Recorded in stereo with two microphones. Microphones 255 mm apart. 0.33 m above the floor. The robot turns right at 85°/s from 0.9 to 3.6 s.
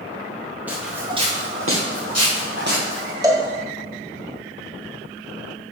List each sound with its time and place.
0.7 s footsteps: 5° right (ahead or behind), 2 m
3.2 s a cowbell: 15° right (ahead or behind), 1.4 m; by 3.5 s 5° right (ahead or behind), 1.4 m